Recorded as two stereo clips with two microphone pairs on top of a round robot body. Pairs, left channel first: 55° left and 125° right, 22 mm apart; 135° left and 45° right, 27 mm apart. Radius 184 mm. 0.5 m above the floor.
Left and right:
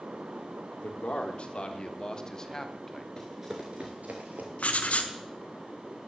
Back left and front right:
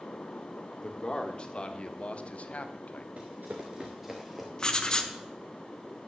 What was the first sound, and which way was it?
A man speaking, 80° left.